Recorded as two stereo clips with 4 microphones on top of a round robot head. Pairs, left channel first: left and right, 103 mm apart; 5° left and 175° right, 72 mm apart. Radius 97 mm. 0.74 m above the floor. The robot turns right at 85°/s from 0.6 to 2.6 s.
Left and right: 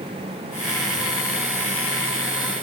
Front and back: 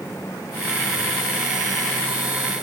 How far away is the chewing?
No chewing in this recording.